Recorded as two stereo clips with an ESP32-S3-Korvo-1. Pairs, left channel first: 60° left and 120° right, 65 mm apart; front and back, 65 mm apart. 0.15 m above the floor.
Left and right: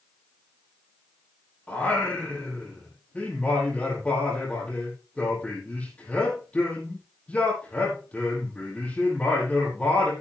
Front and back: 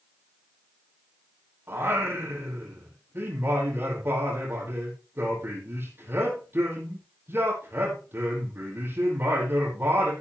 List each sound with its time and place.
1.7 s singing: 130° left, 5 m